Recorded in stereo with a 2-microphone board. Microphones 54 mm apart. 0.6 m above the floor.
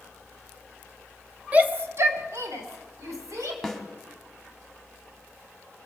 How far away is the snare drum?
About 1.9 m.